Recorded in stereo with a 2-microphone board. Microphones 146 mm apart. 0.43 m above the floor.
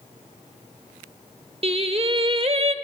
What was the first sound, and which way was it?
Singing, 40° right (ahead or behind).